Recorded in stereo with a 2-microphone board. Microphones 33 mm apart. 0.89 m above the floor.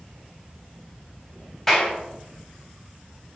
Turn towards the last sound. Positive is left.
turn(degrees=10)  # may be behind; listen again after turning